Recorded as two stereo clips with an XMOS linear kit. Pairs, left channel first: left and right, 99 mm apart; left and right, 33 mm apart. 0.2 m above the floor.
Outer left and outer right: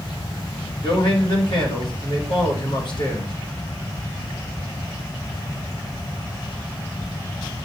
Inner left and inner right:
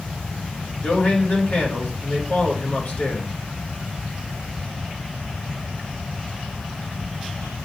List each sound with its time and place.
0.8 s a man speaking: 55° left (ahead or behind), 3 m